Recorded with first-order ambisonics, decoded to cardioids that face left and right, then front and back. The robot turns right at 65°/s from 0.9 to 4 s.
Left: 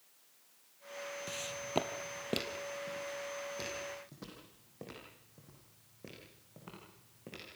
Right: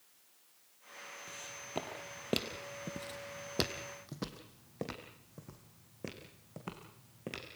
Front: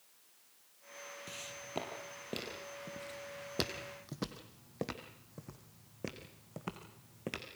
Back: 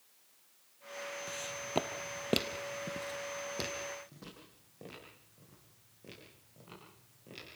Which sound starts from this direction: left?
Footsteps, at 1.3 s.